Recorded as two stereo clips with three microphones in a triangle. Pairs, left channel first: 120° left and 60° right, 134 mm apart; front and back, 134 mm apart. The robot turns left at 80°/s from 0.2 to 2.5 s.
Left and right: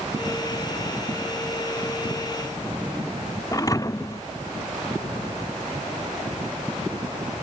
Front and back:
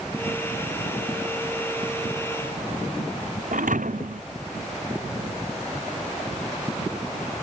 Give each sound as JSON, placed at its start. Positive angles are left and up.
{"t": 3.5, "sound": "a thud", "azimuth_deg": -175}